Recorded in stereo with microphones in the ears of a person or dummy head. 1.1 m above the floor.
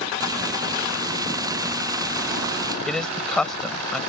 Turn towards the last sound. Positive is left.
turn(degrees=5)  # may be behind; listen again after turning